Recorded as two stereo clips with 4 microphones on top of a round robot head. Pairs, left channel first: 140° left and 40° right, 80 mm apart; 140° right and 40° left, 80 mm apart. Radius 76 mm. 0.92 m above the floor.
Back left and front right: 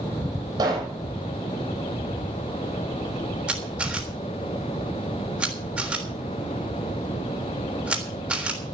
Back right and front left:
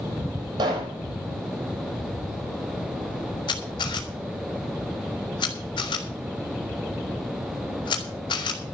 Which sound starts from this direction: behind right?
A camera shutter, at 3.5 s.